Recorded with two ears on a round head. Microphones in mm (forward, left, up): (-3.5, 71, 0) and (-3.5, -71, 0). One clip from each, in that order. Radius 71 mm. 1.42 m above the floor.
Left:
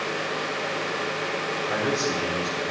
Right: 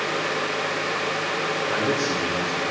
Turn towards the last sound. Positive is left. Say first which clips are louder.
# even
turn(degrees=65)  # may be behind; listen again after turning